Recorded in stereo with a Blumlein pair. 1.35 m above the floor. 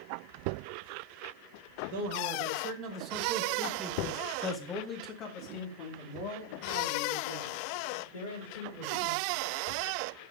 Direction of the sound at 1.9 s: 55° right.